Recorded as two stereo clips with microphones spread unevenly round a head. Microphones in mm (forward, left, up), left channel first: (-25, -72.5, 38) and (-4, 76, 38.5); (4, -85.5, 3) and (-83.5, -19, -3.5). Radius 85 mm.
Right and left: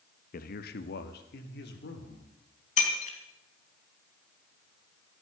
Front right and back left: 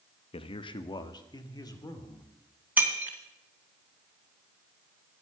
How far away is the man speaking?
About 0.9 m.